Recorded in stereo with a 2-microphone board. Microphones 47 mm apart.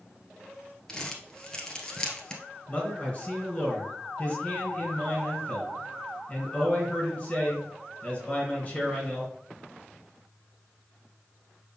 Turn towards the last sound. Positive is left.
turn(degrees=20)  # may be behind; listen again after turning